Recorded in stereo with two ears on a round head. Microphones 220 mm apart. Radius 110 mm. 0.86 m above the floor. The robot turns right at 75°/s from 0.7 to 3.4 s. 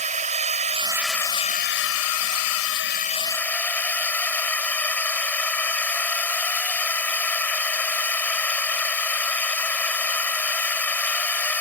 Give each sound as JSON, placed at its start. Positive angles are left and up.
{"t": 0.0, "sound": "a drone", "azimuth_deg": -30}